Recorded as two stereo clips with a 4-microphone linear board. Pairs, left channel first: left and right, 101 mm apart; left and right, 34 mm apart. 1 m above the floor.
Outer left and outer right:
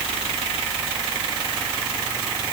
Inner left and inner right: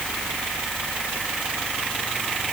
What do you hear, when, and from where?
Only background noise.